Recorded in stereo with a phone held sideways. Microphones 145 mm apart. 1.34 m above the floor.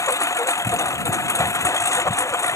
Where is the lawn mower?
20° left (ahead or behind).